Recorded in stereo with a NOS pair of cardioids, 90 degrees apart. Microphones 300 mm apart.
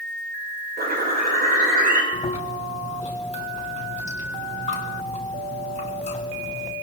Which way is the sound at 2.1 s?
25° left.